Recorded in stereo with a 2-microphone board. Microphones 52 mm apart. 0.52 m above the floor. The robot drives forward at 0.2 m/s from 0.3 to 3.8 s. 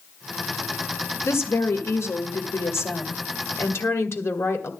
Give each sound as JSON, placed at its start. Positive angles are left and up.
{"t": 1.2, "sound": "a woman speaking", "side_deg": 60, "distance_m": 1.9}